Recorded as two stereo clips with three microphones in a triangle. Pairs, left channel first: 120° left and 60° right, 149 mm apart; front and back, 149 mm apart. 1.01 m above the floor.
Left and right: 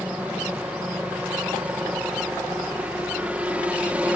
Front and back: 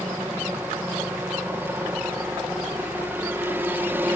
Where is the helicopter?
125° right.